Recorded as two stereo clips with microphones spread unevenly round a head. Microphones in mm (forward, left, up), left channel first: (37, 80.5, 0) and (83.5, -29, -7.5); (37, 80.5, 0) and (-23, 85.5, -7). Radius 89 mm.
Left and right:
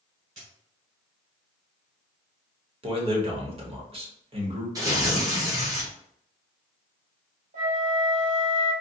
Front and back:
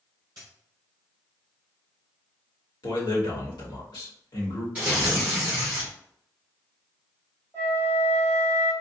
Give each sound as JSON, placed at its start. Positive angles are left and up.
{"t": 0.4, "sound": "a dropped coin", "azimuth_deg": -120, "distance_m": 1.7}
{"t": 2.8, "sound": "a man speaking", "azimuth_deg": -25, "distance_m": 1.3}
{"t": 4.8, "sound": "tearing paper", "azimuth_deg": -125, "distance_m": 0.7}
{"t": 7.5, "sound": "a flute", "azimuth_deg": -70, "distance_m": 1.8}